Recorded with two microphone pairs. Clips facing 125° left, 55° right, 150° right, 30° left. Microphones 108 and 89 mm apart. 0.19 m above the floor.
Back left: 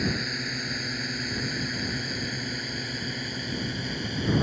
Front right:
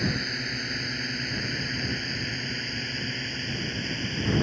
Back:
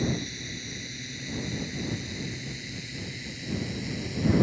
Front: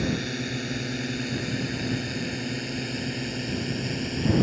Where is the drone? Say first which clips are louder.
Even, front 3 dB; 40° left; by 4.4 s 50° left.